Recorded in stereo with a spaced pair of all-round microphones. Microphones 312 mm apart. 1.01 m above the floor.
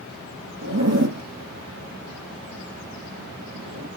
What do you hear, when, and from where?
0.6 s a zipper: 60° right (ahead or behind), 1.8 m